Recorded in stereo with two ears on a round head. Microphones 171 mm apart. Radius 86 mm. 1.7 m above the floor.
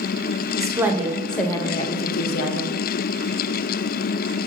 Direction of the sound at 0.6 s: 15° right (ahead or behind).